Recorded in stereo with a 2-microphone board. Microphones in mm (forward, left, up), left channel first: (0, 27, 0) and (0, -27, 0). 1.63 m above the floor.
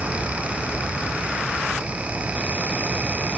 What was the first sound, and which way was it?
Only background noise.